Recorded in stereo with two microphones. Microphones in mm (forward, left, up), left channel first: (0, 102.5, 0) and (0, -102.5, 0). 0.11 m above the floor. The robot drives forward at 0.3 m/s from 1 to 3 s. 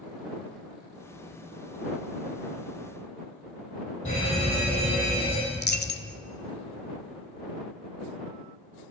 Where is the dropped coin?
55° left (ahead or behind), 0.5 m.